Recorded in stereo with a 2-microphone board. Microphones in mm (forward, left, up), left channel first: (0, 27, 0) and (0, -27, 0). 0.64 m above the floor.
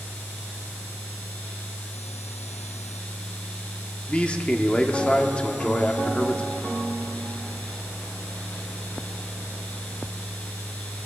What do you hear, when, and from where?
4.1 s a man speaking: 20° left (ahead or behind), 1.2 m